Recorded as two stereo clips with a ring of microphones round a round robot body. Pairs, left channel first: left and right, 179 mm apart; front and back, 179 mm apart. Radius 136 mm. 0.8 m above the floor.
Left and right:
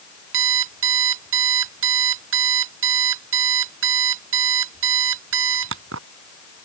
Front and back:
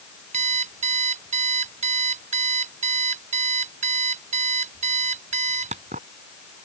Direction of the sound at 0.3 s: 115° right.